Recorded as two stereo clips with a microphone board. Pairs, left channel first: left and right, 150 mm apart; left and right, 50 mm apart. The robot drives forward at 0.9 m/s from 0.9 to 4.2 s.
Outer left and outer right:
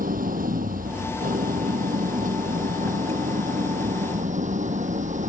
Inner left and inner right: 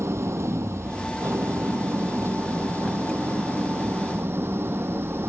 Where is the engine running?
65° right (ahead or behind); by 5.3 s 55° right (ahead or behind).